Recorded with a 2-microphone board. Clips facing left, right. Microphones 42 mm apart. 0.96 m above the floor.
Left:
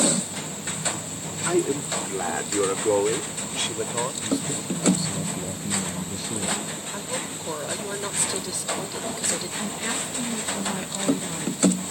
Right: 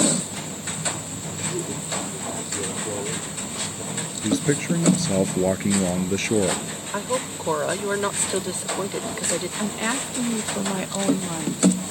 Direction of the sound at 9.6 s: 35° right (ahead or behind).